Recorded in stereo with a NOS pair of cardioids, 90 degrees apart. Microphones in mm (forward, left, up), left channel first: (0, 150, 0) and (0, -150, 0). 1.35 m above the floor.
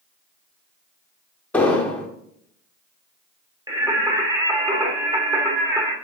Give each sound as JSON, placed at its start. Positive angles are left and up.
{"t": 1.5, "sound": "an explosion", "azimuth_deg": 5, "distance_m": 1.4}
{"t": 3.7, "sound": "singing", "azimuth_deg": -15, "distance_m": 1.6}